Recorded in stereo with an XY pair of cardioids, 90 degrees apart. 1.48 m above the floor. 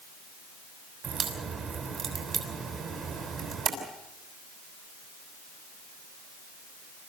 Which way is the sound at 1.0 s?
65° right.